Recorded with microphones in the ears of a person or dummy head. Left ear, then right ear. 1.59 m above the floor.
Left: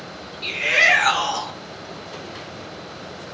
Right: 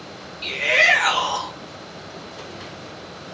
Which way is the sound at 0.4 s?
15° right (ahead or behind).